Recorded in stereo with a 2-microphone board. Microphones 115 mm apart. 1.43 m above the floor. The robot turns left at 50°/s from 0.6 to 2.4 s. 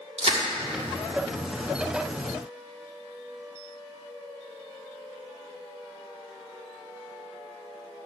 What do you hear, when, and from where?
0.2 s crushing: 65° right (ahead or behind), 1.7 m